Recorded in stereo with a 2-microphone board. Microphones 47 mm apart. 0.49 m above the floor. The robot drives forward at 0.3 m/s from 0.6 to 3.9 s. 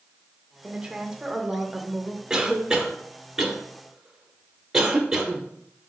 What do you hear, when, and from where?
0.6 s a woman speaking: 15° right (ahead or behind), 1.0 m; by 2.2 s 10° right (ahead or behind), 1.4 m
2.3 s a cough: 15° right (ahead or behind), 1.1 m; by 5.4 s 10° right (ahead or behind), 1.5 m